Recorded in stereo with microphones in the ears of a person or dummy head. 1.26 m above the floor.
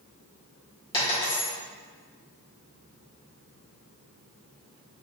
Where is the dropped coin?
25° left (ahead or behind), 1.9 m.